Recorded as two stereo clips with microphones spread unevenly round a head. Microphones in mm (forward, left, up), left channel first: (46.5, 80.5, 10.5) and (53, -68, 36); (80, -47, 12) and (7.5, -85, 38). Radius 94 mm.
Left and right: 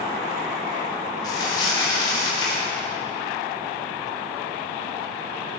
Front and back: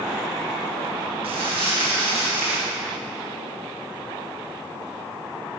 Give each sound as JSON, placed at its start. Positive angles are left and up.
{"t": 1.2, "sound": "crumpling", "azimuth_deg": 160, "distance_m": 3.0}